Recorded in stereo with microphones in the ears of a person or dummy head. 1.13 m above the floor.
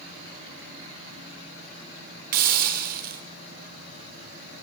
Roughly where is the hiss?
Right.